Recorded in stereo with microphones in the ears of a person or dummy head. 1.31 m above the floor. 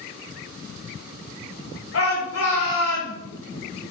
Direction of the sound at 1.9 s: 85° left.